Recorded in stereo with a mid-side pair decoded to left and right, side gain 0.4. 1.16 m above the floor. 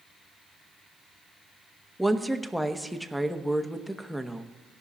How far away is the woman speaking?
About 1.0 m.